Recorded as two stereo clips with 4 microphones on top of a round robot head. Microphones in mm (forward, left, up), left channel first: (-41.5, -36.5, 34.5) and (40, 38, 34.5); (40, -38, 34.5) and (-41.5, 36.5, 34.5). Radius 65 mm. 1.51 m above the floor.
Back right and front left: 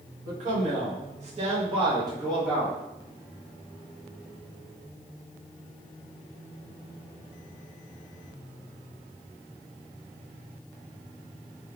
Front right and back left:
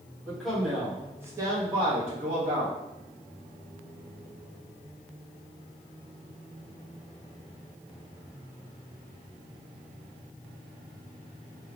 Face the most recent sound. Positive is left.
turn(degrees=120)